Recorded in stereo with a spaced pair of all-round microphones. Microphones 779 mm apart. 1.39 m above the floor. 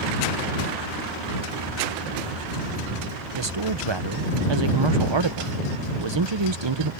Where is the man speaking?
35° right (ahead or behind).